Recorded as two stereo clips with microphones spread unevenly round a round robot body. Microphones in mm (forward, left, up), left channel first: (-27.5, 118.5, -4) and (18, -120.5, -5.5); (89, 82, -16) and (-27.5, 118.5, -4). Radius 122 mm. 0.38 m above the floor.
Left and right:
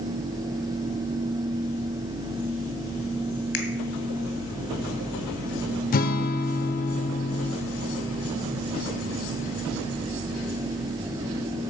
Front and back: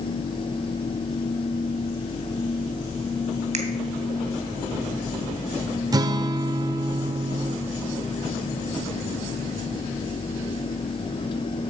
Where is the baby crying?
No baby crying in this recording.